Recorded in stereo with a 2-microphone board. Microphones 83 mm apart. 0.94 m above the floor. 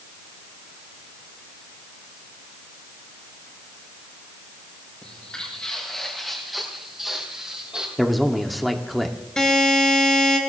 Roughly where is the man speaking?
Centre.